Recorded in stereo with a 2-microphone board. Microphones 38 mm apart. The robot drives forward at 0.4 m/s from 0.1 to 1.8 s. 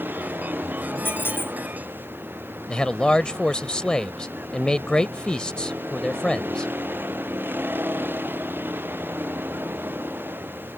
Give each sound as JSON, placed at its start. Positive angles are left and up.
{"t": 0.0, "sound": "a vehicle", "side_deg": -65}
{"t": 1.1, "sound": "a squeak", "side_deg": 65}
{"t": 2.7, "sound": "a man speaking", "side_deg": 25}